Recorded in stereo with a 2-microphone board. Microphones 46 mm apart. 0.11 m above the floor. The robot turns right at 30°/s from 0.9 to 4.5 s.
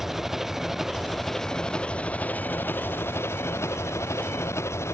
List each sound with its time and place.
0.0 s an engine running: 10° right; by 5.0 s 100° left